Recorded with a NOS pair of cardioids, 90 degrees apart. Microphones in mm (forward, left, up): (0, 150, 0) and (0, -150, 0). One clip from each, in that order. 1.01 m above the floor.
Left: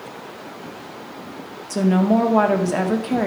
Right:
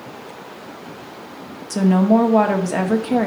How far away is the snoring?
I don't hear snoring.